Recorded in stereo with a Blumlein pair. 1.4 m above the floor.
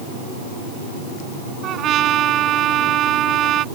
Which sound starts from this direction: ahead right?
A trumpet, at 1.6 s.